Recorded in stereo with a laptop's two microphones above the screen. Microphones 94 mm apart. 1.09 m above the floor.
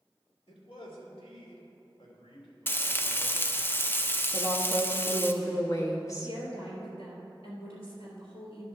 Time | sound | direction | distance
0.5 | a man speaking | 80° left | 2.5 m
2.7 | frying | 20° left (ahead or behind) | 0.6 m
4.3 | a woman speaking | 35° left (ahead or behind) | 1.5 m
6.2 | a woman speaking | 90° left | 3.5 m